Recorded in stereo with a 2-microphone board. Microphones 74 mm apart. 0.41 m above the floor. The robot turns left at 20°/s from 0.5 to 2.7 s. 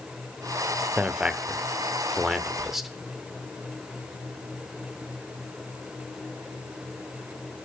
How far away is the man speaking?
About 0.8 m.